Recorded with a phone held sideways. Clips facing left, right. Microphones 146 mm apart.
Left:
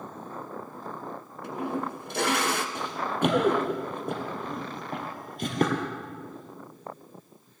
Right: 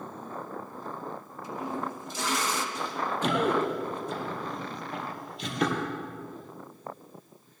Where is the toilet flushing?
65° left (ahead or behind), 0.9 m.